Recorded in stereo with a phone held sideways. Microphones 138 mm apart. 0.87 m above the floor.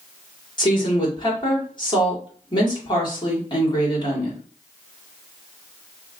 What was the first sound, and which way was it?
A woman speaking, 35° left (ahead or behind).